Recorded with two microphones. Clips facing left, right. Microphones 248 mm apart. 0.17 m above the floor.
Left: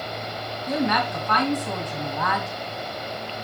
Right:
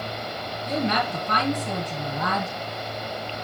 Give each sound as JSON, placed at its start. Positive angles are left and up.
{"t": 0.7, "sound": "a woman speaking", "side_deg": -35, "distance_m": 2.0}